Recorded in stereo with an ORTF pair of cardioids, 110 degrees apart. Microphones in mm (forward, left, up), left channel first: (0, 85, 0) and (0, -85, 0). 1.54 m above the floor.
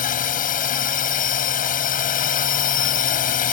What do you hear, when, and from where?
0.0 s a drone: 55° left